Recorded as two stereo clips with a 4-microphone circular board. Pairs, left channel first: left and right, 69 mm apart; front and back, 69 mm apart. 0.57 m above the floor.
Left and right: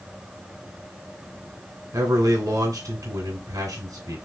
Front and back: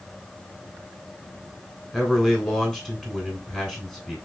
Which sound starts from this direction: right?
A man speaking, at 1.9 s.